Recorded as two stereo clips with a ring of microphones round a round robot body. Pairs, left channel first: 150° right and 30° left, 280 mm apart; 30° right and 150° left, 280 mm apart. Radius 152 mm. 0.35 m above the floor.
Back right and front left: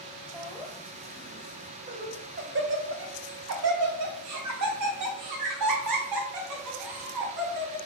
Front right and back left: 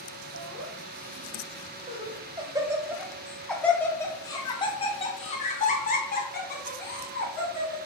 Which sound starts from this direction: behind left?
Laughter, at 0.3 s.